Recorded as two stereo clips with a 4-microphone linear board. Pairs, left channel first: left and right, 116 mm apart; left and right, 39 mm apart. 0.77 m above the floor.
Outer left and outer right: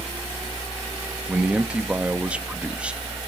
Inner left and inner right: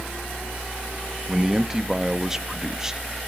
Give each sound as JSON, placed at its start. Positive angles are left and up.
{"t": 1.3, "sound": "a man speaking", "side_deg": -10, "distance_m": 1.0}